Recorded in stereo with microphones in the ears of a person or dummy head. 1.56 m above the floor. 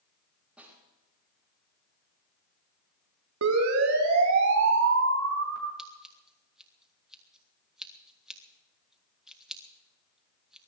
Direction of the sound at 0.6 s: 5° right (ahead or behind).